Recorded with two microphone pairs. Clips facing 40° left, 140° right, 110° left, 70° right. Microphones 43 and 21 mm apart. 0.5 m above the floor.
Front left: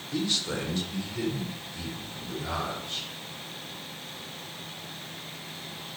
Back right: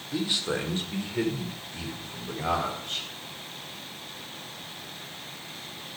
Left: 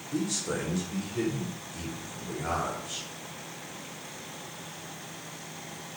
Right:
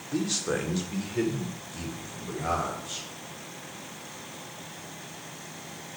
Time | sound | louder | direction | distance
0.1 | a man speaking | back right 1 dB, right 2 dB | 65° right | 1.6 m